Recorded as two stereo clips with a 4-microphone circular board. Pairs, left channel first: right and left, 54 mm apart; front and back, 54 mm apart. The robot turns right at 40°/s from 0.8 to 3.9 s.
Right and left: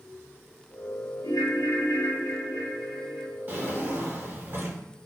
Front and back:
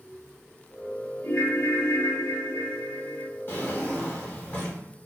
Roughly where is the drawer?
Ahead left.